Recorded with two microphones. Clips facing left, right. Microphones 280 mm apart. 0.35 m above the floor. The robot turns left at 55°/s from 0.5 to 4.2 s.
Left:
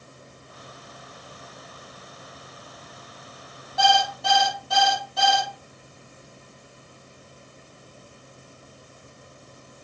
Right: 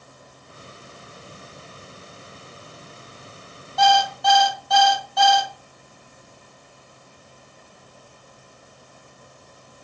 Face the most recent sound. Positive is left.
turn(degrees=30)  # may be behind; listen again after turning